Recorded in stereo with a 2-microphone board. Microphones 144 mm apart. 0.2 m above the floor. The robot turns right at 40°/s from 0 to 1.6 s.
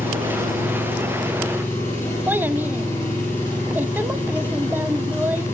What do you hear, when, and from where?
0.0 s an engine running: 100° left, 8.5 m; by 5.5 s 160° left, 8.5 m
2.3 s a child speaking: 15° right (ahead or behind), 0.6 m